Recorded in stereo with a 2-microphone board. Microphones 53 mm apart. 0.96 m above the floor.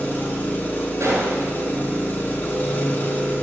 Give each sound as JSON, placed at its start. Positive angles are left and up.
{"t": 0.0, "sound": "an engine running", "side_deg": 40, "distance_m": 1.0}
{"t": 1.0, "sound": "a gunshot", "side_deg": -70, "distance_m": 2.0}